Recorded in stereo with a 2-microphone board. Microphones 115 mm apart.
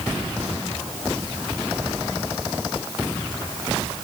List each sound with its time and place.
Only background noise.